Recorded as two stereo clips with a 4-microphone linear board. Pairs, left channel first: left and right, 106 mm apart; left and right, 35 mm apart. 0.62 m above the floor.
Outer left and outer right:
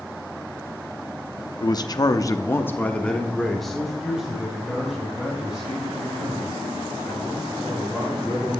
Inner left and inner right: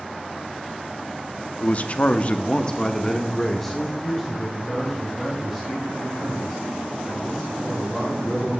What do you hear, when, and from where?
1.6 s a man speaking: 40° left (ahead or behind), 0.8 m; by 8.5 s 10° right (ahead or behind), 5.5 m